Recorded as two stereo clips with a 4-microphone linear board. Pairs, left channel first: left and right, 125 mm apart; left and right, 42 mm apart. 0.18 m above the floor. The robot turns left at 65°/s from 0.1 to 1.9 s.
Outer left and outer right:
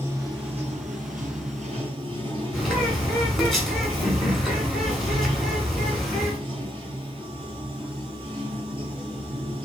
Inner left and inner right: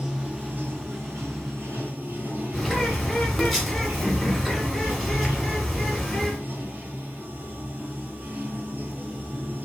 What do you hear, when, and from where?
0.0 s running water: 20° right, 0.8 m; by 9.7 s 135° right, 0.8 m
2.5 s a bird: centre (ahead or behind), 0.9 m